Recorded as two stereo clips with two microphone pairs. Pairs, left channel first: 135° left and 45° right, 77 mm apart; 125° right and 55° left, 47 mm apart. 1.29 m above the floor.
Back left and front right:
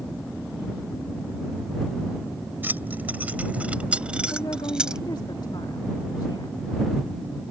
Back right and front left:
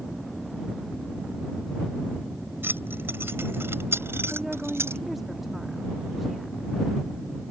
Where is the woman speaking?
140° left.